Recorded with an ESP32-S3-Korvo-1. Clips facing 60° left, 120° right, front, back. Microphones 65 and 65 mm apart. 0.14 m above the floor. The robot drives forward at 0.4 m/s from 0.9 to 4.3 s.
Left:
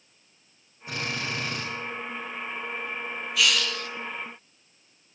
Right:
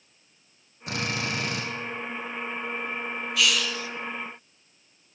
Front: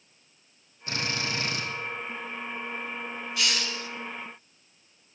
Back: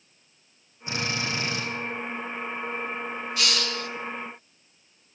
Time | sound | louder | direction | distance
0.9 | a drill | right 2 dB, back 2 dB | 110° right | 4.5 m
3.4 | a hiss | left 1 dB, back 1 dB | 150° left | 0.6 m